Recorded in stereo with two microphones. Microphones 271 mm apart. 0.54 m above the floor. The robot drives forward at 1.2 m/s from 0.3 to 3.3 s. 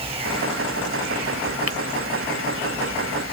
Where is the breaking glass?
60° right (ahead or behind).